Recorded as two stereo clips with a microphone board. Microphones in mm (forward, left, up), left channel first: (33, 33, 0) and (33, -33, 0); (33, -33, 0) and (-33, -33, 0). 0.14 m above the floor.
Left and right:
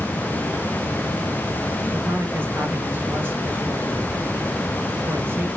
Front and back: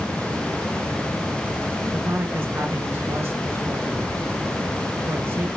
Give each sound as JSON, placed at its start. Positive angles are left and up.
{"t": 1.9, "sound": "a man speaking", "azimuth_deg": -135, "distance_m": 2.0}